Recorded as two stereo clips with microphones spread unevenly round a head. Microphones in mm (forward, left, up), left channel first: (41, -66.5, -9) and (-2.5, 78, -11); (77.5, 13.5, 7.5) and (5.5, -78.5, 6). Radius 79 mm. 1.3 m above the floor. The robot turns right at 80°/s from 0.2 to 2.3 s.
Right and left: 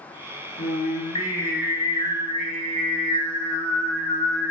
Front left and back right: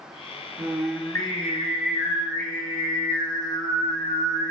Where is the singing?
60° right, 0.8 m; by 4.5 s 80° left, 0.8 m.